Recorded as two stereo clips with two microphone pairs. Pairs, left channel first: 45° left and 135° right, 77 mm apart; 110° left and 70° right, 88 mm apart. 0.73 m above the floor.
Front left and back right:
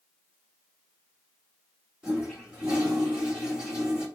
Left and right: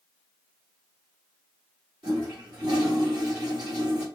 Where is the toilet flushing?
55° right, 1.9 m.